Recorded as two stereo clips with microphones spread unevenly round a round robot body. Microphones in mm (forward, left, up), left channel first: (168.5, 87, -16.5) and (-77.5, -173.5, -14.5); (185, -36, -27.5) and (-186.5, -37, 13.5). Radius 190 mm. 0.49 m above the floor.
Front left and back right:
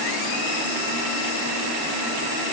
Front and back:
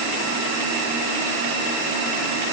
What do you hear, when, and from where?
Only background noise.